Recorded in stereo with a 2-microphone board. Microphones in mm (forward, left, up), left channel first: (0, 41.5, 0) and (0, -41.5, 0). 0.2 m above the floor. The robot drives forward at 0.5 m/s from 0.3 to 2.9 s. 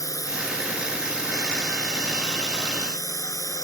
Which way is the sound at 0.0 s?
45° left (ahead or behind).